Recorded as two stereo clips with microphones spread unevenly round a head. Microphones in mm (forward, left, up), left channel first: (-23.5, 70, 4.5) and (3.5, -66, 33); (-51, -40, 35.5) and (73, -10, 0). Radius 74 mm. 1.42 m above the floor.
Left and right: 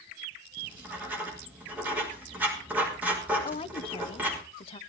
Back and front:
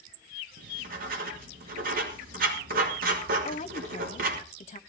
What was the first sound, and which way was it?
Writing, straight ahead.